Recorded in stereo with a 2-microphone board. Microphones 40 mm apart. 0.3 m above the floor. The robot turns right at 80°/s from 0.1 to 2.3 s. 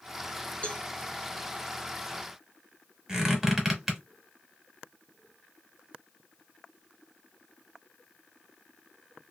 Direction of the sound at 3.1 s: 15° right (ahead or behind).